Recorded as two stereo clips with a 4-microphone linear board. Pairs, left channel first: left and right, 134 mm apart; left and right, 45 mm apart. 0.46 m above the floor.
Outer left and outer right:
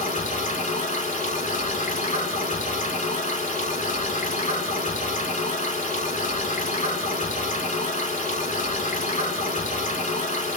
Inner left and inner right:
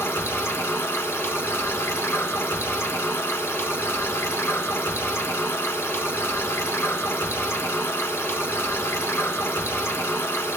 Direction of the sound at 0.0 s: 80° left.